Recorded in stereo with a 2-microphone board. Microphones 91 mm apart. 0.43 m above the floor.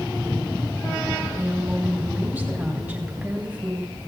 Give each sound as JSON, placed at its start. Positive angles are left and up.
{"t": 1.4, "sound": "a woman speaking", "side_deg": -20, "distance_m": 3.0}